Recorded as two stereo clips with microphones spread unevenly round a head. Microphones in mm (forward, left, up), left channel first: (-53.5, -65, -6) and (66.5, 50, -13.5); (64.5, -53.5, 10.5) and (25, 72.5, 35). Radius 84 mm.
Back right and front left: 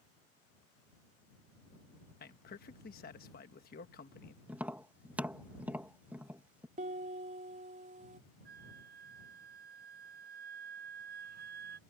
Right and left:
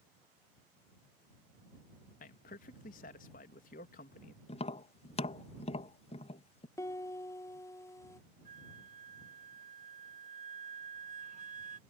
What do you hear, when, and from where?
2.2 s a man speaking: 100° right
4.5 s tapping: 40° right
6.8 s a piano: 5° right
8.4 s a flute: 80° left